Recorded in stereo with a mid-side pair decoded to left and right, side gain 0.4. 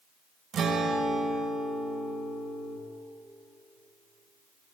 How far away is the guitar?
About 1.2 m.